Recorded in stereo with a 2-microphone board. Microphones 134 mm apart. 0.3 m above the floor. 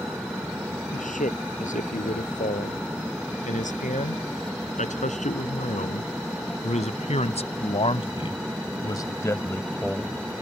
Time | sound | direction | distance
0.9 | a man speaking | 80° left | ?